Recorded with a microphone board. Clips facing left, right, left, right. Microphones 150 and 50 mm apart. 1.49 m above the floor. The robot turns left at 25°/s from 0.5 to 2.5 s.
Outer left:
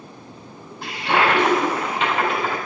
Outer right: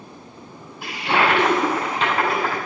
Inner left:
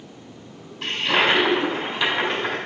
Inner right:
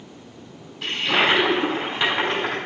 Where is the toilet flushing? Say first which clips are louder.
Outer left 1 dB, even; 10° right, 3 m; by 2.6 s 50° right, 3 m.